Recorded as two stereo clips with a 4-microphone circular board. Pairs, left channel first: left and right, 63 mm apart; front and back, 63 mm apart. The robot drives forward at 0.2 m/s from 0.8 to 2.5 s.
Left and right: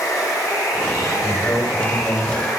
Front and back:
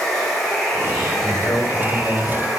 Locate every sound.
0.0 s running water: 80° left, 1.7 m; by 2.6 s 95° left, 1.7 m
1.2 s a man speaking: 70° left, 1.7 m; by 2.5 s 80° left, 1.7 m